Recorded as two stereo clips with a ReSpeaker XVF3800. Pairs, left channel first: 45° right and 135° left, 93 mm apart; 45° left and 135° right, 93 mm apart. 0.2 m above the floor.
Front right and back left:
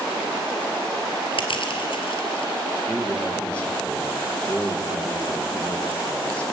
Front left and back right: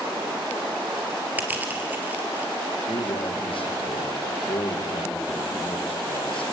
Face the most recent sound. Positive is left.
turn(degrees=30)